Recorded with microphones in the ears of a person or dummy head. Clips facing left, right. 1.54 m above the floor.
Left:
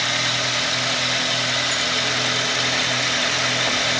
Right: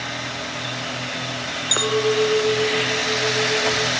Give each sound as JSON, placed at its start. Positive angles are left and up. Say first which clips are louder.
{"t": 1.7, "sound": "a clink", "louder": "right 9 dB", "side_deg": -80}